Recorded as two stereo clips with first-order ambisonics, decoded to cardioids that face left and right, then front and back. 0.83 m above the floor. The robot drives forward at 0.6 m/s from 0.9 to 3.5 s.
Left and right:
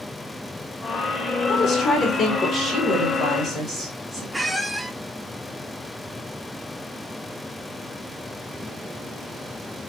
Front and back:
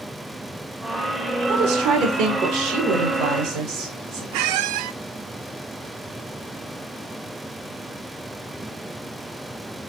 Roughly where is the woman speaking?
Behind left.